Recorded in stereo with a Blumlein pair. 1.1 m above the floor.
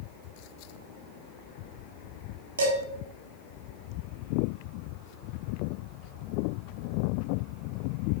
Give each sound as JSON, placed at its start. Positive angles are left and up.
{"t": 2.6, "sound": "dishes clattering", "azimuth_deg": -65, "distance_m": 1.3}